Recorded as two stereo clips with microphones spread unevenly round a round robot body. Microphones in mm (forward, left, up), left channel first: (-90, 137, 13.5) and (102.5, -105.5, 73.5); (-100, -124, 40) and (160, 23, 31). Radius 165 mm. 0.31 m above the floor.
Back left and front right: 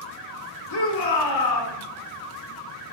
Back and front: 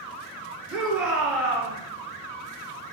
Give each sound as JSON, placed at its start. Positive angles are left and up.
{"t": 0.7, "sound": "a shout", "azimuth_deg": 115, "distance_m": 3.5}